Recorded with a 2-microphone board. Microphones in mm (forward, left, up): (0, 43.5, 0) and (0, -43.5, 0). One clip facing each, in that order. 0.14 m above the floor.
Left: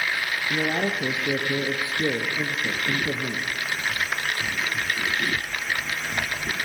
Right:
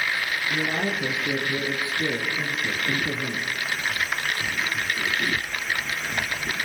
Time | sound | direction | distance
0.5 | a man speaking | 25° left (ahead or behind) | 3 m